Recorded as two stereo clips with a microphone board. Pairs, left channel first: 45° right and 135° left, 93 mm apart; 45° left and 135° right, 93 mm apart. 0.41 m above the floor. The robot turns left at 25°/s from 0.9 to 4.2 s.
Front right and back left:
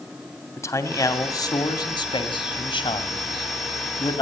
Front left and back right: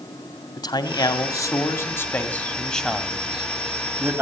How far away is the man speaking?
About 2 m.